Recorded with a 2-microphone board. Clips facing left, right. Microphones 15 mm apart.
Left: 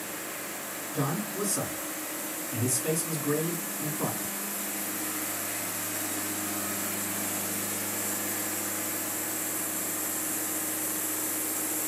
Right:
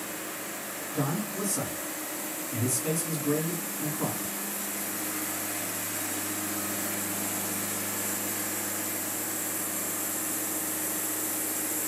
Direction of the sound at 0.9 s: 5° left (ahead or behind).